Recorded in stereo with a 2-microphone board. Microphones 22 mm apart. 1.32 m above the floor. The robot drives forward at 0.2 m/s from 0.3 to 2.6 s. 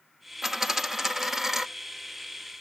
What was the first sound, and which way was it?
A dropped coin, 10° right (ahead or behind).